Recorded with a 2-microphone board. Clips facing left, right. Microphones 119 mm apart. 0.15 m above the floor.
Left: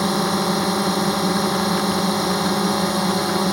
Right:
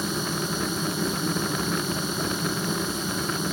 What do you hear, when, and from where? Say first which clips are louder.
0.0 s a drone: left 9 dB; 70° left (ahead or behind)